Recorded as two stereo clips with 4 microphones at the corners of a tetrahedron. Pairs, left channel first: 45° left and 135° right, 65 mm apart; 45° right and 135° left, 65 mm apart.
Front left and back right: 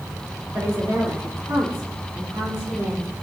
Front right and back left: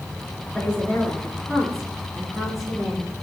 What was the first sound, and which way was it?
A woman speaking, 120° right.